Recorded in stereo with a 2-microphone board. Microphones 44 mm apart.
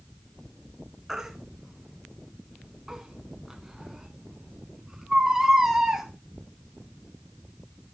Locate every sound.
1.1 s a baby crying: 10° right (ahead or behind), 1.7 m